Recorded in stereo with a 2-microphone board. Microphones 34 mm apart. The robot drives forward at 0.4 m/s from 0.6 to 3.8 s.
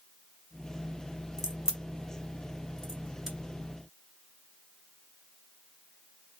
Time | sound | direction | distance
1.4 | a crack | 15° right (ahead or behind) | 1.0 m